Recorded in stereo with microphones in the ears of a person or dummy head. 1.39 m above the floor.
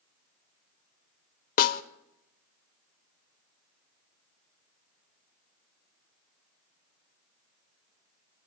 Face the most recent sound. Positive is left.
turn(degrees=55)  # may be behind; listen again after turning